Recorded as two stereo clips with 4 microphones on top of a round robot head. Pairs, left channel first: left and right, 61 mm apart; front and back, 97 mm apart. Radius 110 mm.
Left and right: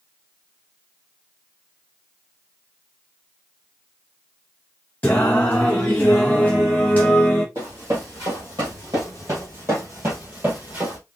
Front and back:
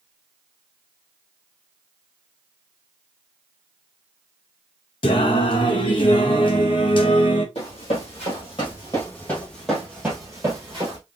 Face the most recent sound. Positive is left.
turn(degrees=-135)